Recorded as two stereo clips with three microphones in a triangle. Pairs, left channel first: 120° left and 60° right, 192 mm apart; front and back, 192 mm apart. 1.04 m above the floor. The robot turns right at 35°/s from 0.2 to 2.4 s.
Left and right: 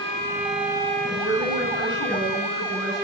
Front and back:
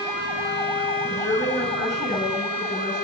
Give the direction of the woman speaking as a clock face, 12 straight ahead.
9 o'clock.